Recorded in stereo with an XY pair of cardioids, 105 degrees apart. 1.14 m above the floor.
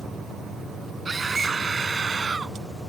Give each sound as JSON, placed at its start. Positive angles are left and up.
{"t": 1.1, "sound": "a scream", "azimuth_deg": -35}